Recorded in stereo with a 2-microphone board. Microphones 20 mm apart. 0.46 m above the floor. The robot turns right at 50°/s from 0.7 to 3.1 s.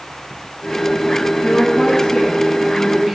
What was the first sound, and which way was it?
A woman speaking, 130° left.